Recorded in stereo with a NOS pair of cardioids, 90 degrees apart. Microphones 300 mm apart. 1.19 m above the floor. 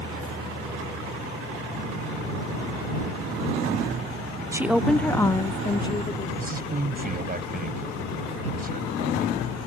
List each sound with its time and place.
4.5 s a woman speaking: 10° right; by 6.3 s 15° left
6.4 s a man speaking: 30° right